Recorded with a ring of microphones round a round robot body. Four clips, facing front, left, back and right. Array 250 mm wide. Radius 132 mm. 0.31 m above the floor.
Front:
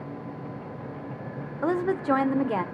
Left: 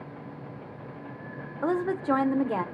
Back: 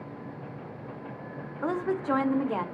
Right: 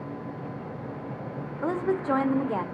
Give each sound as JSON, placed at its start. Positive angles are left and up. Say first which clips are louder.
{"t": 1.6, "sound": "a woman speaking", "louder": "even, front 4 dB", "azimuth_deg": 10, "distance_m": 0.9}